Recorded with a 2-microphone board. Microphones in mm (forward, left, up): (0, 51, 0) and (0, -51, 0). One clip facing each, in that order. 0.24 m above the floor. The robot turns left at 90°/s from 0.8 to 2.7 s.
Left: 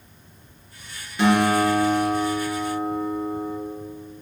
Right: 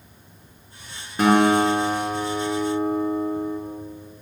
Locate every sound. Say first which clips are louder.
1.2 s a guitar: right 2 dB; 45° right, 4 m; by 3.6 s straight behind, 4 m